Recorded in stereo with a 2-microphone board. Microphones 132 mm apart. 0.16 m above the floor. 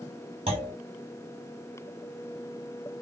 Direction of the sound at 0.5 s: 45° right (ahead or behind).